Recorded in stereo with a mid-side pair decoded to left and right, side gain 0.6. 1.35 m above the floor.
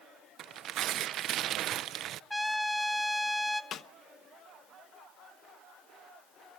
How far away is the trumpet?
About 3 m.